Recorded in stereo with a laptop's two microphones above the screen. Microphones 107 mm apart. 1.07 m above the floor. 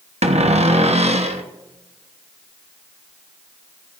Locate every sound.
0.2 s a cupboard door: 80° right, 1.0 m